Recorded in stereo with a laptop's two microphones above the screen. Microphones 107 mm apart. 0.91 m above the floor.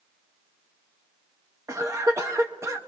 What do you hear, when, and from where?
1.7 s a cough: 30° right (ahead or behind), 0.8 m